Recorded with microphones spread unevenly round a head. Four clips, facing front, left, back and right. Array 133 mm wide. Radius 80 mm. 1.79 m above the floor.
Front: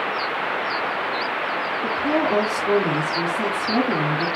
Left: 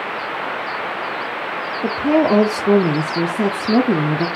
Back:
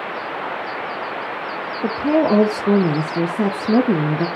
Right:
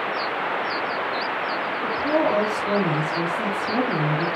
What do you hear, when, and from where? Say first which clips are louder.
1.8 s a woman speaking: left 6 dB, back 6 dB; 135° left, 0.6 m